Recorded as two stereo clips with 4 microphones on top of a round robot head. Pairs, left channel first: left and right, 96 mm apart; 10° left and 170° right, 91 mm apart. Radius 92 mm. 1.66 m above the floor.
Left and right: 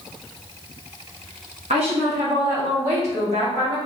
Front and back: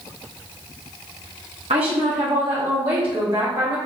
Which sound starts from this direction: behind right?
A woman speaking, at 1.7 s.